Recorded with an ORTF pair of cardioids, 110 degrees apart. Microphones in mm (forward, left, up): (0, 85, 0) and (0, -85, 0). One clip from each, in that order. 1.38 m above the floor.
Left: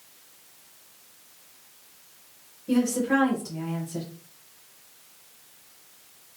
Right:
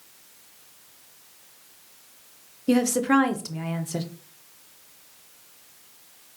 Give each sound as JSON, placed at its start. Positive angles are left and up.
{"t": 2.7, "sound": "a woman speaking", "azimuth_deg": -55, "distance_m": 0.7}